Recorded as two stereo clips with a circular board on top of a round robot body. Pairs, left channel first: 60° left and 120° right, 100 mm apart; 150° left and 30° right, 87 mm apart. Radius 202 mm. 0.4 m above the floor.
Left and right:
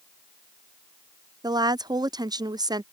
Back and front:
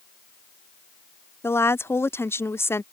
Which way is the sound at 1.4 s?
155° right.